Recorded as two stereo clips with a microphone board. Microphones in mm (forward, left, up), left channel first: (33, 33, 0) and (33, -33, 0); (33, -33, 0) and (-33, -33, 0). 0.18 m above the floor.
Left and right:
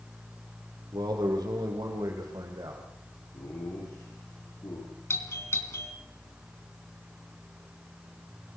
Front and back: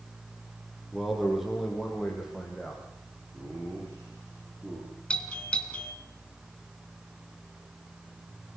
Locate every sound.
0.9 s a man speaking: 90° right, 6 m; by 2.8 s 95° right, 7.5 m
3.3 s laughter: 120° left, 9 m
5.1 s a doorbell: 70° left, 2.5 m